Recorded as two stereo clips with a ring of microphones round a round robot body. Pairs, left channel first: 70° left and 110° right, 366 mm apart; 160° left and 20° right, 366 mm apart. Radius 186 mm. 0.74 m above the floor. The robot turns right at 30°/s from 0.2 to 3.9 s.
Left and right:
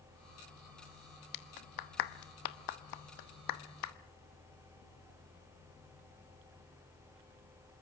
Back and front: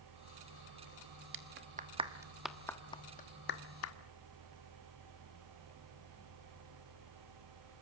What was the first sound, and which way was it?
A clap, 35° left.